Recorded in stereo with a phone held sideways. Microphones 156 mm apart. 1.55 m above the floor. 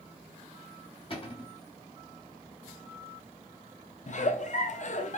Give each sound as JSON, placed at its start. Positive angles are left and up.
{"t": 1.1, "sound": "a cupboard door", "side_deg": 35, "distance_m": 1.6}
{"t": 4.1, "sound": "a giggle", "side_deg": 50, "distance_m": 0.6}